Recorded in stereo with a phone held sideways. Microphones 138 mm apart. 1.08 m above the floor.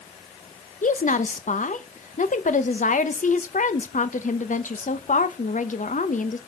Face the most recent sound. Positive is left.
turn(degrees=70)  # may be behind; listen again after turning